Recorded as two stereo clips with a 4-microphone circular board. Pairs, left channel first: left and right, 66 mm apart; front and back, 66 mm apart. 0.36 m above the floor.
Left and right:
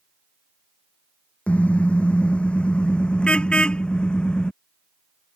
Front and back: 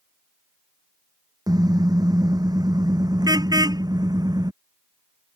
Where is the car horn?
160° left; by 4.5 s 165° left.